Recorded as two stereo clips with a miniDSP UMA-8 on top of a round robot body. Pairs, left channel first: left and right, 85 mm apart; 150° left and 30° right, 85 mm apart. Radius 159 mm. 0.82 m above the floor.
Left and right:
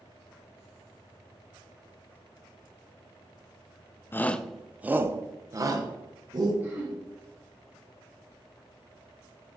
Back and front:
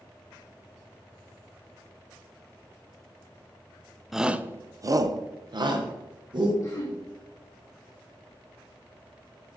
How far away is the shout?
About 0.7 m.